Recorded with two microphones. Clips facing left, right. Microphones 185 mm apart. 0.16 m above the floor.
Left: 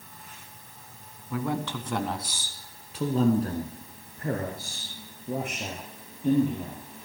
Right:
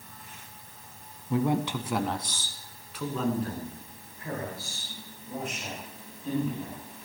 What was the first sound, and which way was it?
A man speaking, 30° right (ahead or behind).